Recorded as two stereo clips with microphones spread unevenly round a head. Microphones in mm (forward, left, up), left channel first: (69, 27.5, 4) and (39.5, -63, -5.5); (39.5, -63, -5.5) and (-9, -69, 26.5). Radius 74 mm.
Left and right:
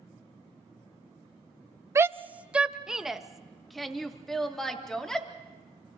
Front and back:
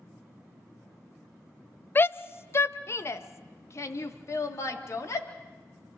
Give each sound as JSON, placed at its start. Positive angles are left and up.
{"t": 1.9, "sound": "a shout", "azimuth_deg": -45, "distance_m": 0.6}